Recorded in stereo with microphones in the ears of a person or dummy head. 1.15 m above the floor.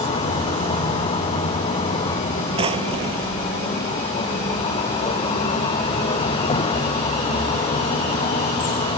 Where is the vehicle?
35° left (ahead or behind).